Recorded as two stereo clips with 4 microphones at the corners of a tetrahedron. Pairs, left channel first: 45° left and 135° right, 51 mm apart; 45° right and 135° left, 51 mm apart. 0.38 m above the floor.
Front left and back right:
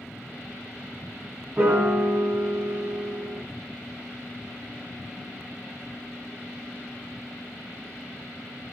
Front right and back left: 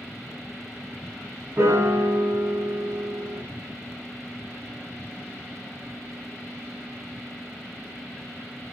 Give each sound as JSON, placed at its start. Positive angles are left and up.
{"t": 1.6, "sound": "a piano", "azimuth_deg": 170, "distance_m": 0.8}